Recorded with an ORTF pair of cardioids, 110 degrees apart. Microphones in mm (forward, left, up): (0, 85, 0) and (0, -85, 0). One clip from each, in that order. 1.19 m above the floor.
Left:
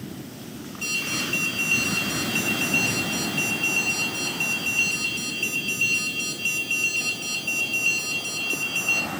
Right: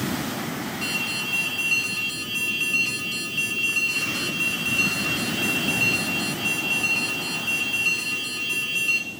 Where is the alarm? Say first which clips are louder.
Left 1 dB; 40° right, 3 m.